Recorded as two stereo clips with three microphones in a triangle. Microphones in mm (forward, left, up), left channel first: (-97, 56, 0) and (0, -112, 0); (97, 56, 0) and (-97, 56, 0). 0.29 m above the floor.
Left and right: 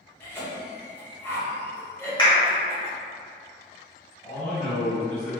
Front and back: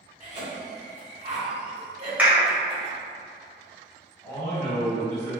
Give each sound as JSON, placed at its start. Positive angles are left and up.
{"t": 0.2, "sound": "a cough", "azimuth_deg": -170, "distance_m": 1.1}
{"t": 2.2, "sound": "a clap", "azimuth_deg": 110, "distance_m": 1.0}
{"t": 4.2, "sound": "a man speaking", "azimuth_deg": 80, "distance_m": 1.8}